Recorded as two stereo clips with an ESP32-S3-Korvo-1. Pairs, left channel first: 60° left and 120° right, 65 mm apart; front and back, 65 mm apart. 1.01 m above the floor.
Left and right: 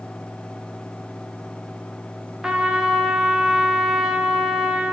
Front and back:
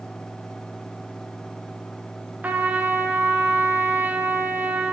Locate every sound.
2.4 s a trumpet: 175° left, 0.7 m